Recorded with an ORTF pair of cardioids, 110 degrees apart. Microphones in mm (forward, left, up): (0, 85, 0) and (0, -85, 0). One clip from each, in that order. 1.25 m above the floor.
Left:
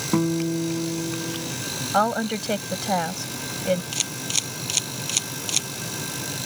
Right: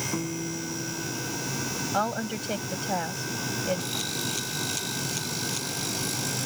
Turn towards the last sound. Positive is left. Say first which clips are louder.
# left 4 dB
turn(degrees=70)